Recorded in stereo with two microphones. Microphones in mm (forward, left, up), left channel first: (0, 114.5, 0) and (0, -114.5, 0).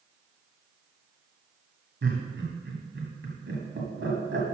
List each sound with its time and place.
2.0 s laughter: 55° right (ahead or behind), 2 m